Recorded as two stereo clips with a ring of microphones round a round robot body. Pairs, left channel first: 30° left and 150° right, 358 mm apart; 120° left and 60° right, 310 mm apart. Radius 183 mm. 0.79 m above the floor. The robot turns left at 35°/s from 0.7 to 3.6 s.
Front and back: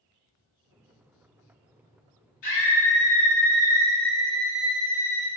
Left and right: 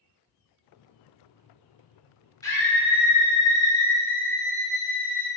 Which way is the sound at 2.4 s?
40° left.